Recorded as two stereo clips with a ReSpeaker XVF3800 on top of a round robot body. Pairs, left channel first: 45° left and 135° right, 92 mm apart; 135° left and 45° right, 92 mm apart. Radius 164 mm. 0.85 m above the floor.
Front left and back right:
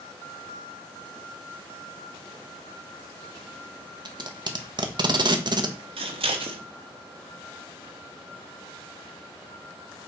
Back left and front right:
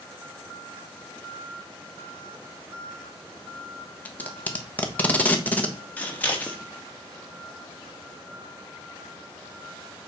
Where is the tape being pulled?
155° right, 1.3 m.